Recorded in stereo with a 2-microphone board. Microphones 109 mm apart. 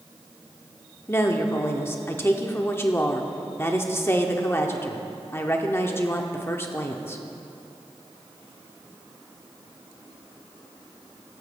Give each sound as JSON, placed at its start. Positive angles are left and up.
{"t": 1.1, "sound": "a woman speaking", "side_deg": 25, "distance_m": 0.9}